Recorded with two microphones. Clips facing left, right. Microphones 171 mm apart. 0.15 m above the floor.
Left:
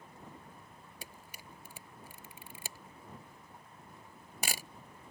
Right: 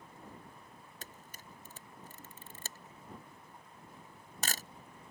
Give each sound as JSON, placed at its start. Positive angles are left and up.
{"t": 1.0, "sound": "a camera shutter", "side_deg": 10}